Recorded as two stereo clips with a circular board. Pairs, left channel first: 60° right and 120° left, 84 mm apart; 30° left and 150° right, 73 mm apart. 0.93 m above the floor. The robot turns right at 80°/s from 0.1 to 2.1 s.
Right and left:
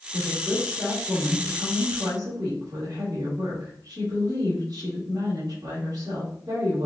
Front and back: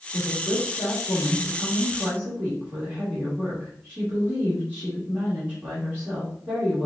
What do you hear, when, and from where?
0.1 s a woman speaking: 5° right, 3 m; by 6.9 s 150° left, 3 m